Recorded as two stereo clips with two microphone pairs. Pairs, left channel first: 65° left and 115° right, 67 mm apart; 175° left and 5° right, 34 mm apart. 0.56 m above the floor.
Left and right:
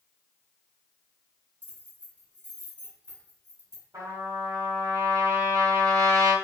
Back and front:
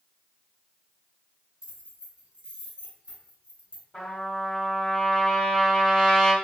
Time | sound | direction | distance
1.6 | keys jangling | 65° right | 1.7 m
3.9 | a trumpet | 125° right | 1.2 m